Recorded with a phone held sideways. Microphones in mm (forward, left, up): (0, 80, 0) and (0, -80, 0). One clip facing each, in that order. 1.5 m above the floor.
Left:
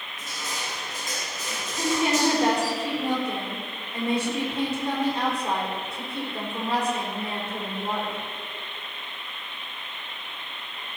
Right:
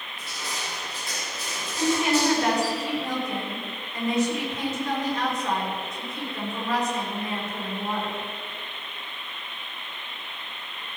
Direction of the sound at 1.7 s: 30° left (ahead or behind).